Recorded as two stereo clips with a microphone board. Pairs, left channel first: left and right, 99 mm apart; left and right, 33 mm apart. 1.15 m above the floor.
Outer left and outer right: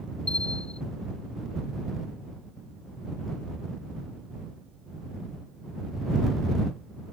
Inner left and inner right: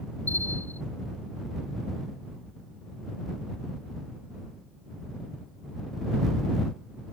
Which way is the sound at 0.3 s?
80° left.